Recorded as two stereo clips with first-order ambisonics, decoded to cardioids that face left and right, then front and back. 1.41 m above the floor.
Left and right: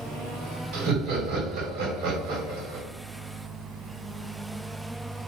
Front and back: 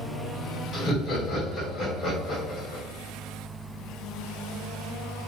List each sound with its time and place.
0.7 s laughter: 75° right, 2 m